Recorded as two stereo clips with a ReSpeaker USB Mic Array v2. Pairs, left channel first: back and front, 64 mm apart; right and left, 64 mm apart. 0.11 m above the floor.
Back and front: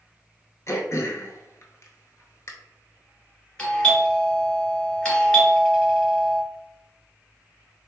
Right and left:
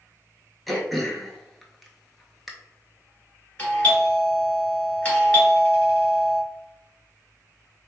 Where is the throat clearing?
Straight behind, 0.7 m.